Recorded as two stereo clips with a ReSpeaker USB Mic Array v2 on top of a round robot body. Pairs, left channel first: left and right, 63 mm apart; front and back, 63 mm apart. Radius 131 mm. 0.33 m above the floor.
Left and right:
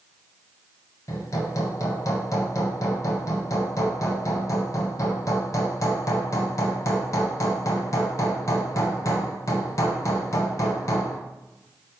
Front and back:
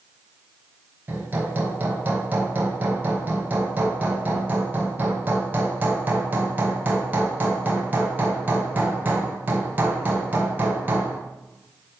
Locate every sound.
1.1 s hammering: 120° left, 1.3 m